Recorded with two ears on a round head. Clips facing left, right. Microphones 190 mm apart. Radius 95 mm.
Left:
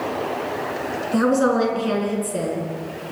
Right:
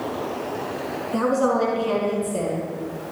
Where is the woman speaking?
20° left (ahead or behind), 6 m.